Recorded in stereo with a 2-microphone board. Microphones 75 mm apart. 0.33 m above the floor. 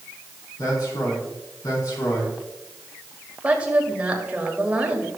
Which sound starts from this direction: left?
A man speaking, at 0.6 s.